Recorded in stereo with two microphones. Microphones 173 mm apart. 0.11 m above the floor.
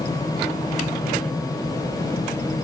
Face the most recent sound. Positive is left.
No sound to turn to.